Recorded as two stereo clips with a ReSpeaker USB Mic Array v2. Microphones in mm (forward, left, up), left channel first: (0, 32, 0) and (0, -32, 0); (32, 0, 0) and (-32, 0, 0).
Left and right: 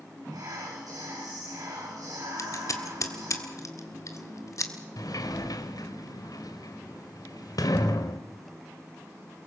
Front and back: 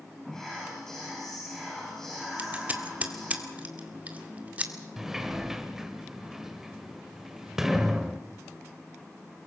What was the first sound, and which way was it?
Whispering, 80° right.